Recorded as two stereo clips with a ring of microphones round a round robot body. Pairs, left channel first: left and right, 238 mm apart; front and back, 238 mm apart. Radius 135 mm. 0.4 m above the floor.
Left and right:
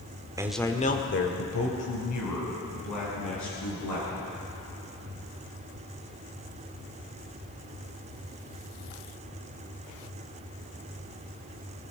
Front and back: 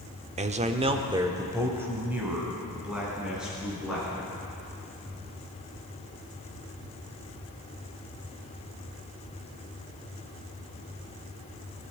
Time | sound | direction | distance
0.4 | a man speaking | 150° right | 1.0 m